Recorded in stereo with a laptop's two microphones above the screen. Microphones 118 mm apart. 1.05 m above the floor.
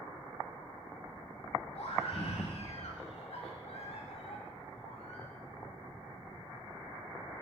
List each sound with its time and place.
1.8 s a scream: 60° left (ahead or behind), 2 m